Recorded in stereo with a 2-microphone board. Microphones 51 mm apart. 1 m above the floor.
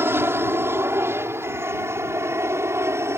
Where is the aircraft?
50° right (ahead or behind); by 3.2 s 65° right (ahead or behind).